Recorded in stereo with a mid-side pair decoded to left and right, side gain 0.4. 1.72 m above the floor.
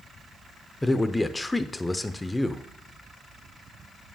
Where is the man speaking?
15° left, 0.8 m.